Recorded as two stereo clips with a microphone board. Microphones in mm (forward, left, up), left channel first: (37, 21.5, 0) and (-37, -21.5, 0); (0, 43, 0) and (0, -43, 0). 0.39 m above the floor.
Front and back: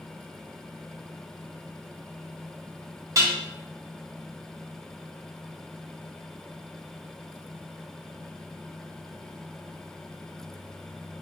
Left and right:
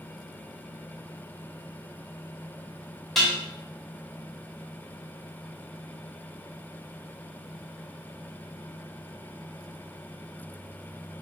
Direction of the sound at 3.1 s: 175° left.